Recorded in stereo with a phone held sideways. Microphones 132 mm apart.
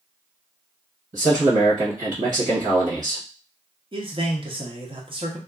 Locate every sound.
1.1 s a man speaking: 80° right, 1.0 m
3.9 s a man speaking: 40° right (ahead or behind), 0.8 m